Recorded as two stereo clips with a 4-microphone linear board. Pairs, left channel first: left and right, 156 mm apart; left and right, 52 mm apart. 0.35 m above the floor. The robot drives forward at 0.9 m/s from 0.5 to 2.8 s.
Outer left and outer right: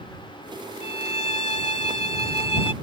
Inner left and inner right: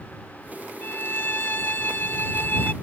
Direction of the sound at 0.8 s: 40° left (ahead or behind).